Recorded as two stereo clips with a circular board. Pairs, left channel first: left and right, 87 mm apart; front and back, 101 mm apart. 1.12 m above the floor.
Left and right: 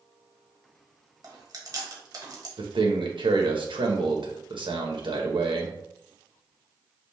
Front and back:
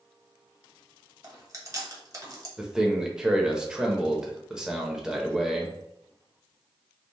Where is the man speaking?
100° right, 1.0 m.